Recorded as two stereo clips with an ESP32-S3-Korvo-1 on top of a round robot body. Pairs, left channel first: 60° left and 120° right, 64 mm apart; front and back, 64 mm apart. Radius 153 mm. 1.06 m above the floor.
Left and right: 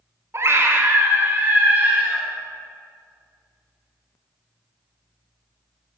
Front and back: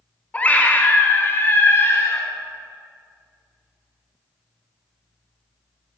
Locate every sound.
0.3 s a scream: 70° right, 2.5 m; by 2.3 s 50° right, 3.5 m